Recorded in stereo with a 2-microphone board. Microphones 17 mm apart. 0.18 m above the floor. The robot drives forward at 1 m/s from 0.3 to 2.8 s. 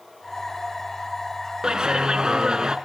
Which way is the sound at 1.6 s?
50° right (ahead or behind).